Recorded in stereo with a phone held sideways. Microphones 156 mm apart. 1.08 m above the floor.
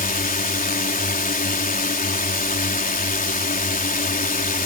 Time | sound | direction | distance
0.0 | a drone | 65° left (ahead or behind) | ?